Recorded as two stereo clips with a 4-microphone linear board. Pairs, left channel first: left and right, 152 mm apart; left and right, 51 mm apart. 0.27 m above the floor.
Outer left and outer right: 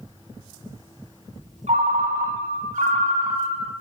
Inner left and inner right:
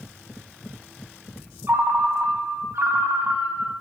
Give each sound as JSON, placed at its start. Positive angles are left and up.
{"t": 1.7, "sound": "a ringtone", "side_deg": -50, "distance_m": 0.7}